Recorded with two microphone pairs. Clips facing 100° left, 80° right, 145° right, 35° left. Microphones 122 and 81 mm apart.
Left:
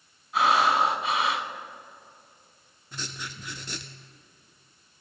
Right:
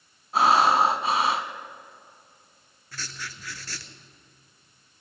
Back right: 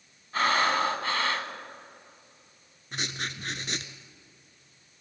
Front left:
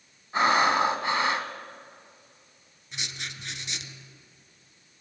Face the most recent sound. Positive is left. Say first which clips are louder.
# left 1 dB, back right 4 dB
turn(degrees=170)